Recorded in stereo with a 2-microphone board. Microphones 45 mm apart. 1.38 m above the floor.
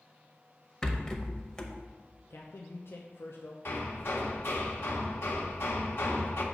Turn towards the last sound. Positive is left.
turn(degrees=55)  # may be behind; listen again after turning